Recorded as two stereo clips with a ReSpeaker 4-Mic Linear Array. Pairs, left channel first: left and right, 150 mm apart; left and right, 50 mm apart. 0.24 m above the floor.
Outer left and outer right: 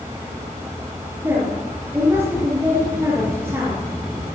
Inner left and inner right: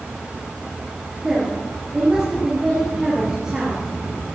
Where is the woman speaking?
20° right (ahead or behind), 5.5 m.